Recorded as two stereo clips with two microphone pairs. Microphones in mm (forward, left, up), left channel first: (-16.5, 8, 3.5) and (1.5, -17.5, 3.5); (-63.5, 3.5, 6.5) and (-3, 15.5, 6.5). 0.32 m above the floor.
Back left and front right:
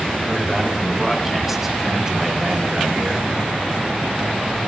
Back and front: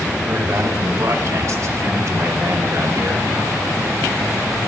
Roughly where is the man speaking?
Ahead left.